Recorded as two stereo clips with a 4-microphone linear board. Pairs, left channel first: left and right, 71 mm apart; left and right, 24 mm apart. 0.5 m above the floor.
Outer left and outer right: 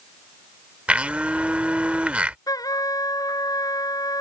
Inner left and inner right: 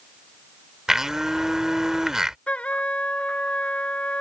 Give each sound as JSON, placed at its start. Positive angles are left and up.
{"t": 0.9, "sound": "a blender", "side_deg": -20}
{"t": 2.5, "sound": "a trumpet", "side_deg": 60}